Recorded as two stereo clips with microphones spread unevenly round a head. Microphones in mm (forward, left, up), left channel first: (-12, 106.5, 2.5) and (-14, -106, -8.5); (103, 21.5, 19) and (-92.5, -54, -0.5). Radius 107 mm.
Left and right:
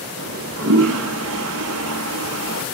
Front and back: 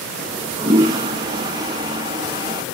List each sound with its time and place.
0.2 s a toilet flushing: 85° right, 1.0 m